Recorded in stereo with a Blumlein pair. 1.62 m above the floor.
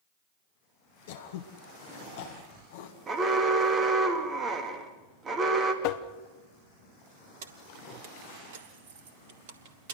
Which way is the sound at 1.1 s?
55° left.